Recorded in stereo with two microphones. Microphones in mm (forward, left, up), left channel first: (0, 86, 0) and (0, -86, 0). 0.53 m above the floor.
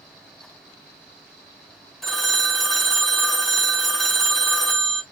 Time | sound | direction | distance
2.0 | a phone ringing | centre (ahead or behind) | 0.7 m